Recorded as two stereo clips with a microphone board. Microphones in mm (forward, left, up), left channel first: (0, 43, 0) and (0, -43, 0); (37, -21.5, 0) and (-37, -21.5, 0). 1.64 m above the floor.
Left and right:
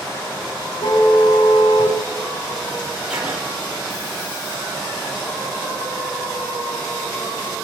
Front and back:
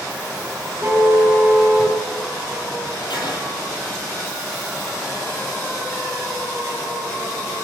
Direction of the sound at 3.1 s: 10° right.